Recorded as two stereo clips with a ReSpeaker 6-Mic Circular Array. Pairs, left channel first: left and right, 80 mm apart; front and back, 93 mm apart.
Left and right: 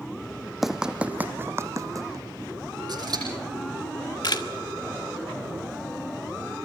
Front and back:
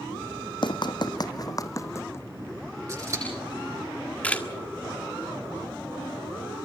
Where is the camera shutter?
75° left, 1.6 m.